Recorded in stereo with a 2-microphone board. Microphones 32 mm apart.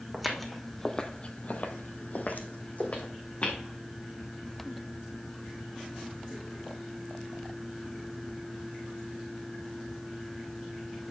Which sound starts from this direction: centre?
Footsteps, at 0.1 s.